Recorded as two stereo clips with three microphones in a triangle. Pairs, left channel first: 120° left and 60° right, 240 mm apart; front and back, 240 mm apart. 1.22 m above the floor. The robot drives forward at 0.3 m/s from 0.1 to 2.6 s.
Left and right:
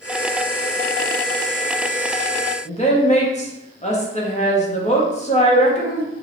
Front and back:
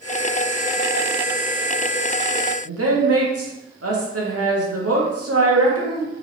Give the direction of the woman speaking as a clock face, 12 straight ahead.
6 o'clock.